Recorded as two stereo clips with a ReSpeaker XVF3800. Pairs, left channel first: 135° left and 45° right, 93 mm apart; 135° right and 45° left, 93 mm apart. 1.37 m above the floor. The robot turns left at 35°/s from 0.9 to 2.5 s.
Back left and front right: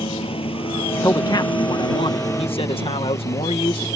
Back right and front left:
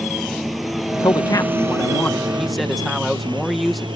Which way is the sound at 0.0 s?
135° left.